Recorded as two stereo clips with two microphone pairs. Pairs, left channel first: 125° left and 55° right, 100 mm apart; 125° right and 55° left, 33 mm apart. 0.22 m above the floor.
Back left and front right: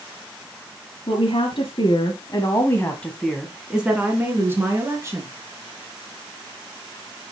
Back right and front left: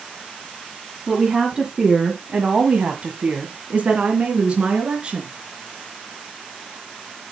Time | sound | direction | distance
1.1 | a woman speaking | 135° left | 2.5 m